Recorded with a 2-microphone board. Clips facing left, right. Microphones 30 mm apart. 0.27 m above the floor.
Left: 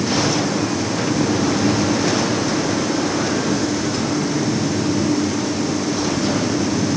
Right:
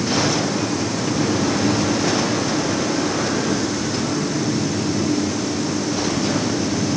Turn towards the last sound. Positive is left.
No sound to turn to.